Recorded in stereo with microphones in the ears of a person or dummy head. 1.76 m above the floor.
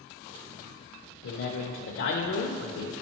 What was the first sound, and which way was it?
A man speaking, 65° left (ahead or behind).